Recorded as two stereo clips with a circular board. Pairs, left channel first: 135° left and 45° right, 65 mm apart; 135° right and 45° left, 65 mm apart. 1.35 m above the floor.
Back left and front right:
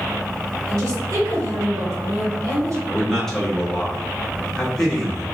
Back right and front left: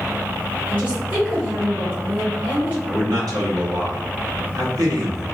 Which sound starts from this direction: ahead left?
A man speaking, at 2.9 s.